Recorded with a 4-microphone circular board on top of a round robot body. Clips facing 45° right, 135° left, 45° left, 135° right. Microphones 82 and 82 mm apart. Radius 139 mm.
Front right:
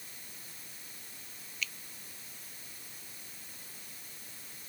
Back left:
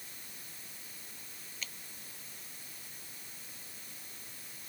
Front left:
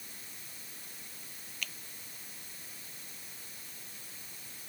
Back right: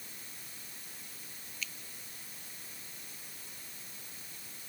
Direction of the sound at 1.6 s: 80° left.